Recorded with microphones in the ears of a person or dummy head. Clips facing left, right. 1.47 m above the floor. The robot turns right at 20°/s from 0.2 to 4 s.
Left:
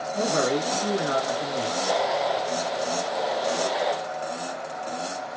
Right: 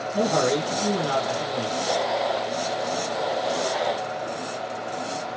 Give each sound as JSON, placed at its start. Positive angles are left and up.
{"t": 0.1, "sound": "a man speaking", "azimuth_deg": -50, "distance_m": 1.2}